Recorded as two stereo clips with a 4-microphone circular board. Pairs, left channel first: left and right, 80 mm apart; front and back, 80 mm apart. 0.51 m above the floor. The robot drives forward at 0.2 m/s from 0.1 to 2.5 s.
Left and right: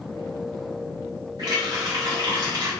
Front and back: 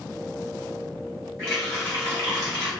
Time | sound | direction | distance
1.4 | a running tap | 125° right | 2.0 m